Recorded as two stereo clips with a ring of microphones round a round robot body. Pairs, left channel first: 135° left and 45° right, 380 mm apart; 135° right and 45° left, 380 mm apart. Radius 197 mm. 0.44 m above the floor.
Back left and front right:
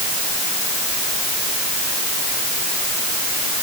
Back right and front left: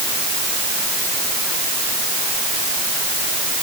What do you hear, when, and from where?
Only background noise.